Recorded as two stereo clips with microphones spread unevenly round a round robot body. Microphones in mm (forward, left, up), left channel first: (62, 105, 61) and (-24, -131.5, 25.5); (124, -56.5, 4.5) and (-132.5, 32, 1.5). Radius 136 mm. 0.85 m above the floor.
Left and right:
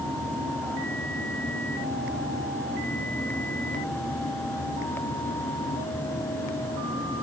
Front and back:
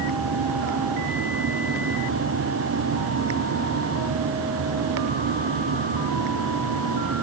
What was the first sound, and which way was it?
Only background noise.